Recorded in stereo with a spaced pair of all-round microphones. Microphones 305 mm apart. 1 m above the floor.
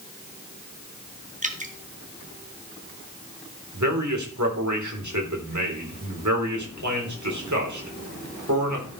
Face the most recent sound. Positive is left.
turn(degrees=-75)  # may be behind; listen again after turning